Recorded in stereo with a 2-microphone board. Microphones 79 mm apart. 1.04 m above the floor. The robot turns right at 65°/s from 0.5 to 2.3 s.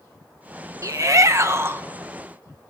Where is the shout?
105° right, 0.9 m; by 1.8 s 40° right, 0.9 m.